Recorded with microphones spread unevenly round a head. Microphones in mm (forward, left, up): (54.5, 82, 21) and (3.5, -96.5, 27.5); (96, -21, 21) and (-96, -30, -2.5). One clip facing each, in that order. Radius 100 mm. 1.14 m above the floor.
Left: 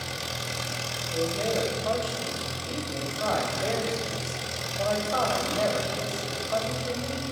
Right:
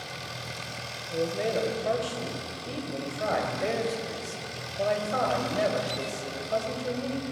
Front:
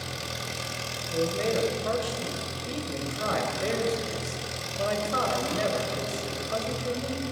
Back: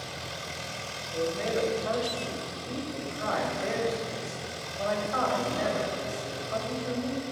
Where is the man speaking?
35° right, 4.5 m.